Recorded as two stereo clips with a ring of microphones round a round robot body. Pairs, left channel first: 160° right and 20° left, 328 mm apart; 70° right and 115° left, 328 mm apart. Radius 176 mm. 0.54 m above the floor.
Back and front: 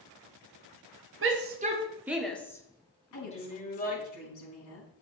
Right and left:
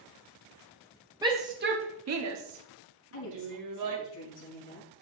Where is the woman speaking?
120° right, 4.5 m.